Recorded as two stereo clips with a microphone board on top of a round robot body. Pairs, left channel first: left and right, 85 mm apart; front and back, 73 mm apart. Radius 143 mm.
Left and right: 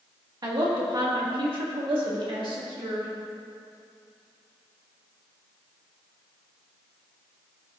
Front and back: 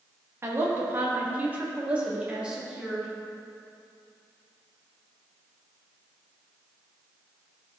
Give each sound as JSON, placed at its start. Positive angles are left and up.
{"t": 0.4, "sound": "a woman speaking", "azimuth_deg": -125, "distance_m": 1.8}